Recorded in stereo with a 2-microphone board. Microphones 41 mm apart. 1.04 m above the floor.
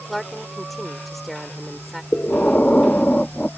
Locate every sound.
0.1 s a woman speaking: 5° left (ahead or behind)
2.1 s breathing: 30° left (ahead or behind)